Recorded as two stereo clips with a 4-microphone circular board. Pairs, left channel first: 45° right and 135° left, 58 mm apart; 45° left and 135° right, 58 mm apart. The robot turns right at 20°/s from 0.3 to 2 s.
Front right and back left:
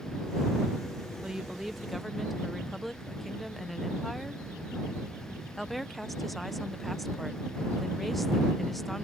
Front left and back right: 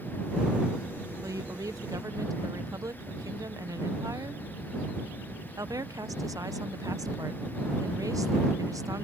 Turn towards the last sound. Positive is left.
turn(degrees=-135)